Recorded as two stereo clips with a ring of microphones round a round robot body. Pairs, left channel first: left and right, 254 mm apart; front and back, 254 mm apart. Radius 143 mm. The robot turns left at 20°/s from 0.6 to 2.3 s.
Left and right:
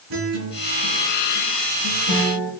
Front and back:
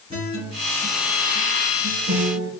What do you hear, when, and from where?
0.1 s a guitar: 105° right, 2.5 m; by 2.5 s 140° right, 2.5 m